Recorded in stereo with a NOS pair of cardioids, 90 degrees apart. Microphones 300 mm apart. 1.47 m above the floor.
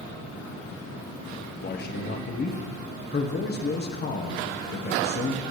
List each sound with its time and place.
1.6 s a man speaking: 35° left, 1.3 m